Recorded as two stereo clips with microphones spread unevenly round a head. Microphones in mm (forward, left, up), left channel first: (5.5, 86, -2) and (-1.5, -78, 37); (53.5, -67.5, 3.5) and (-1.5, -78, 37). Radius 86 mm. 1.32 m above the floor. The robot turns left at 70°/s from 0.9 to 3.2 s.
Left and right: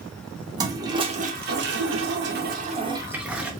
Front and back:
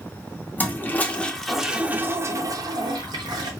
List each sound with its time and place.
0.6 s a toilet flushing: 20° right, 0.7 m; by 3.5 s straight behind, 0.7 m